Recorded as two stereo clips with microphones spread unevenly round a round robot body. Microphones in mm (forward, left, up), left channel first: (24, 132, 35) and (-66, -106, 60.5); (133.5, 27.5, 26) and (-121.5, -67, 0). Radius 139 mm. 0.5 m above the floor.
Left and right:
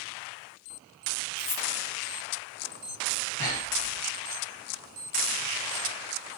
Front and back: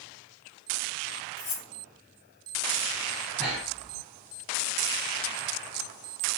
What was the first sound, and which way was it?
Cutlery clinking, 75° left.